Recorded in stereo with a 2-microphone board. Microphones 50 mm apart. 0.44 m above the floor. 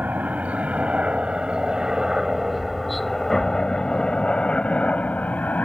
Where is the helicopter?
35° right (ahead or behind); by 5.7 s 35° left (ahead or behind).